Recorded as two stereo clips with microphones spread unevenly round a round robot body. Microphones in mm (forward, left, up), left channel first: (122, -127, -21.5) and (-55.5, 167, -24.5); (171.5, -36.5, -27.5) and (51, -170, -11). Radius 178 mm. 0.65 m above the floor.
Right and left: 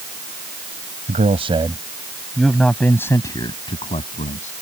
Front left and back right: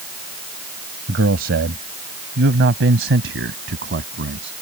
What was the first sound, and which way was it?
A man speaking, 170° right.